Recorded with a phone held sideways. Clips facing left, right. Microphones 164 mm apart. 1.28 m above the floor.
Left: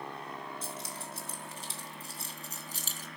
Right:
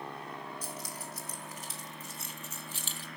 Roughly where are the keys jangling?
Left.